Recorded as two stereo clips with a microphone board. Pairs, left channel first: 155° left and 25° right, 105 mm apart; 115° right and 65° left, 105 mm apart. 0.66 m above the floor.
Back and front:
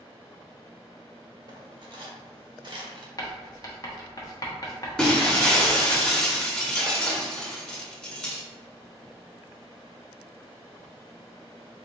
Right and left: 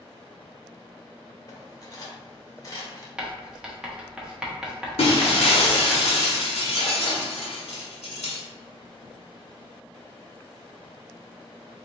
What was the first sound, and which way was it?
Cutlery clinking, 60° right.